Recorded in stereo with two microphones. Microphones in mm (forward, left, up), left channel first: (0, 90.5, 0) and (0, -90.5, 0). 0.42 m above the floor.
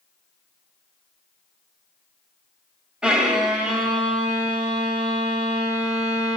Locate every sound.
3.0 s a violin: 5° right (ahead or behind), 0.9 m